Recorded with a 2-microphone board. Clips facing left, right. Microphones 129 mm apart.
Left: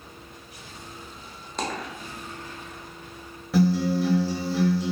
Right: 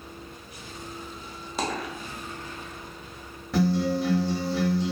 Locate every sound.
1.6 s a dropped coin: 5° right (ahead or behind), 0.5 m
3.5 s a guitar: centre (ahead or behind), 0.6 m